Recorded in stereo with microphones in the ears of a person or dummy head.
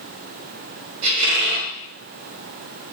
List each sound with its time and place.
1.0 s a squeak: 50° right (ahead or behind), 1.5 m